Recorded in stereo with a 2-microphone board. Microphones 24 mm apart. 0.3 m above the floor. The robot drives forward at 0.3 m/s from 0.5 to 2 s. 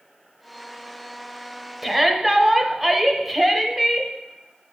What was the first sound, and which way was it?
A shout, 10° right (ahead or behind).